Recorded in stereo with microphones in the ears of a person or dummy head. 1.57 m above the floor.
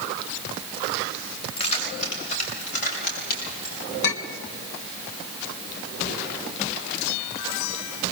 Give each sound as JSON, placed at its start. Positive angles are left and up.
{"t": 1.6, "sound": "keys jangling", "side_deg": 40, "distance_m": 5.5}
{"t": 4.0, "sound": "a clink", "side_deg": 65, "distance_m": 1.6}